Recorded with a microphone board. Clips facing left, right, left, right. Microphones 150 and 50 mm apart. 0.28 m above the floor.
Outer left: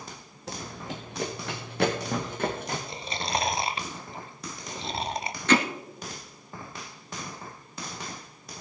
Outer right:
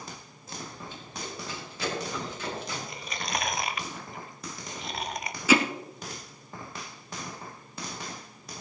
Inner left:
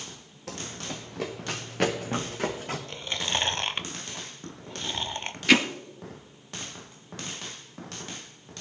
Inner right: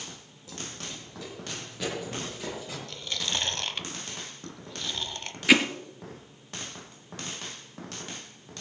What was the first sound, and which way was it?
Running footsteps, 75° left (ahead or behind).